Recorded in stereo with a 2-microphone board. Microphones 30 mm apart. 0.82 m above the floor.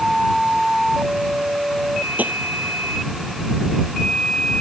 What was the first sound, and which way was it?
Tapping, 70° right (ahead or behind).